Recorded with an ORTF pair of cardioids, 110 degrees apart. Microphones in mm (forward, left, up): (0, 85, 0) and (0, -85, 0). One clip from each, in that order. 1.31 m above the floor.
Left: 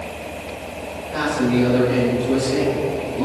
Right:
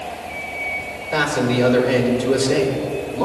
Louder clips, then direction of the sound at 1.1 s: Right 2 dB; 55° right.